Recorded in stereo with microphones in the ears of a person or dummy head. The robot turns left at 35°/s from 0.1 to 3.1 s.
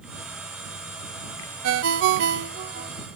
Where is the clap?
I don't hear a clap.